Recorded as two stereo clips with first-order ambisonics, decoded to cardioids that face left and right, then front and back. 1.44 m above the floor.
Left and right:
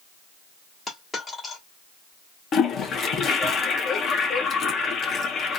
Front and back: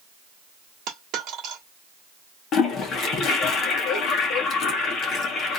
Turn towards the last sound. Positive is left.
turn(degrees=40)